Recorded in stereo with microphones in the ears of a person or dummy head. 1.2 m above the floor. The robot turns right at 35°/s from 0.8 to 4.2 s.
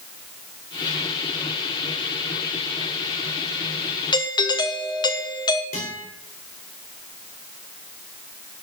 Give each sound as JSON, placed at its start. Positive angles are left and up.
{"t": 4.1, "sound": "a doorbell", "side_deg": 20, "distance_m": 0.9}
{"t": 5.7, "sound": "a guitar", "side_deg": 40, "distance_m": 4.0}